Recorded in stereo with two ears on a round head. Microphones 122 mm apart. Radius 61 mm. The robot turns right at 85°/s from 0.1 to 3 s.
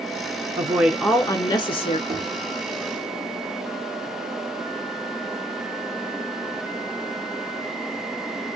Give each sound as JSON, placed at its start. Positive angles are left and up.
{"t": 0.6, "sound": "a woman speaking", "azimuth_deg": -35, "distance_m": 1.3}
{"t": 2.1, "sound": "knocking", "side_deg": -25, "distance_m": 1.5}